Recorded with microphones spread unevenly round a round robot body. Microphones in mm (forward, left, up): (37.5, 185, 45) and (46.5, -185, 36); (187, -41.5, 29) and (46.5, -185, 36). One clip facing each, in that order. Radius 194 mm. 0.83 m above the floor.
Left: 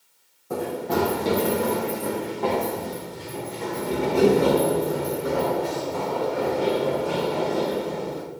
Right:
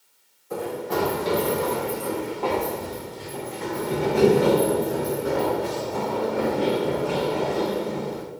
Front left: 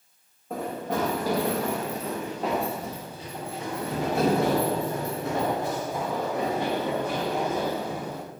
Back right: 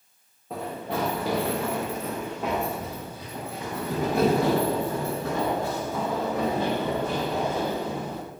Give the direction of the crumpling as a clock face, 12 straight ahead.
No crumpling in this recording.